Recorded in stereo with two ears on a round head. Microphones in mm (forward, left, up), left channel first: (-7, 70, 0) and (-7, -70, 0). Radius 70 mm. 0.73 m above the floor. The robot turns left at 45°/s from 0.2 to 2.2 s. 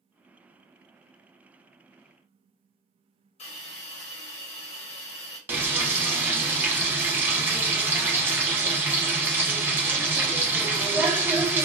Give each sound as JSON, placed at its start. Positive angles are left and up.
{"t": 3.4, "sound": "a hiss", "side_deg": 40, "distance_m": 1.2}
{"t": 5.5, "sound": "frying", "side_deg": -15, "distance_m": 0.8}